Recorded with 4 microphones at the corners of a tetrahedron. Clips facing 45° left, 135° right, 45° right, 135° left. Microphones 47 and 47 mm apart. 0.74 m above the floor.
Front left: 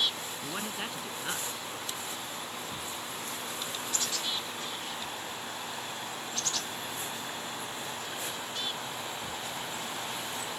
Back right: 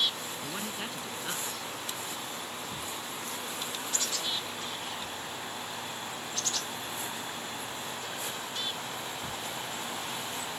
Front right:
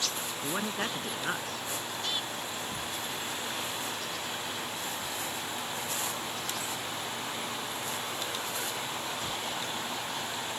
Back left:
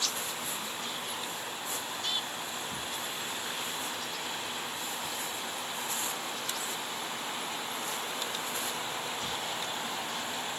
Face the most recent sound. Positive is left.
turn(degrees=-35)